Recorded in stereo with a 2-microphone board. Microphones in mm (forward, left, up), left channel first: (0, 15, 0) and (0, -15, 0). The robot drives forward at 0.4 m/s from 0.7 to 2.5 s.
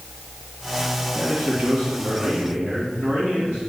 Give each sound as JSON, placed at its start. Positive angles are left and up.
{"t": 1.1, "sound": "a man speaking", "side_deg": -60, "distance_m": 1.8}